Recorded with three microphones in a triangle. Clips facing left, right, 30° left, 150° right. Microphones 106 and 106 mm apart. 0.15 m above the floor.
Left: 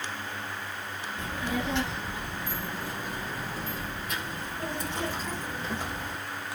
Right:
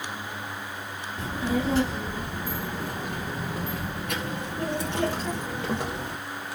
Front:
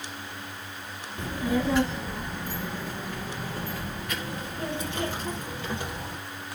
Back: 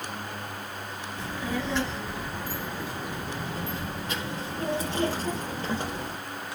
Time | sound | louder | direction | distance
1.2 | a child speaking | right 5 dB, front 5 dB | 35° right | 1.5 m